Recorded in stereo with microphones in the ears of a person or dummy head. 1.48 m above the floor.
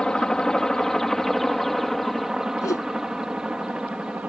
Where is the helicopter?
5° left (ahead or behind); by 4.3 s 5° right (ahead or behind).